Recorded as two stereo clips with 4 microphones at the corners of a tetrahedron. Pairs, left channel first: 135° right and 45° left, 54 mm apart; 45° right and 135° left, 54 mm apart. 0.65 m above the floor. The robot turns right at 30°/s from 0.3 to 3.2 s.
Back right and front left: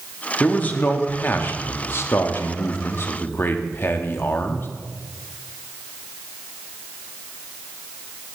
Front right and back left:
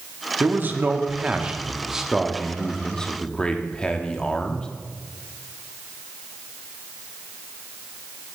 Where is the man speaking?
165° left, 0.9 m; by 4.7 s 110° right, 0.9 m.